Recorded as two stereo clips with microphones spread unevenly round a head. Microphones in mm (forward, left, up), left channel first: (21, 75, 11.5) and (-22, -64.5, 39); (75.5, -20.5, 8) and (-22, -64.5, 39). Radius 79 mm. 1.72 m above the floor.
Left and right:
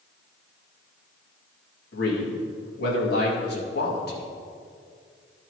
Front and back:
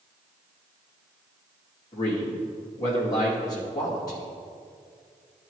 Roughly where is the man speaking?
Left.